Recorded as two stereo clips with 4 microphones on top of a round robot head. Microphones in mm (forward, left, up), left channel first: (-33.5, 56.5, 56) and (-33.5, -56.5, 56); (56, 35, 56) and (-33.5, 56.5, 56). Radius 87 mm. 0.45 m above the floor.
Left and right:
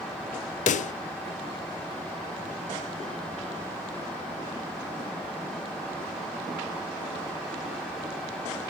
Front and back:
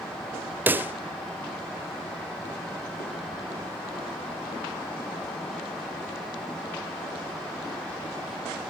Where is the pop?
95° left, 0.5 m.